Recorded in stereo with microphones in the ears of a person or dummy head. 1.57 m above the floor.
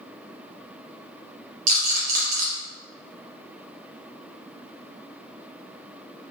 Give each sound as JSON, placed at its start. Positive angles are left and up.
{"t": 1.7, "sound": "a rattle", "side_deg": -45, "distance_m": 1.0}